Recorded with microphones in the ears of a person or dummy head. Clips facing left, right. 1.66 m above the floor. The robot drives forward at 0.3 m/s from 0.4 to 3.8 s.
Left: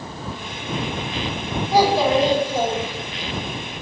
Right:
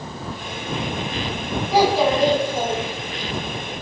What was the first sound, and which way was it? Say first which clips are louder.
A child speaking: left 1 dB; centre (ahead or behind).